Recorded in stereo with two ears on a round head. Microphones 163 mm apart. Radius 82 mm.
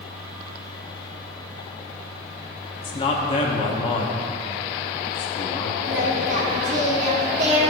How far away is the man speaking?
About 0.6 m.